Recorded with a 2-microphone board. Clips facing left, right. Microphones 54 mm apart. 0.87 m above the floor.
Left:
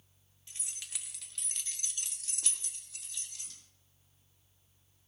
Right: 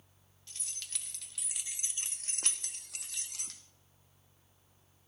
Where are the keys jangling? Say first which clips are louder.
Even; 20° left (ahead or behind), 1.3 m; by 3.6 s 80° right, 1.4 m.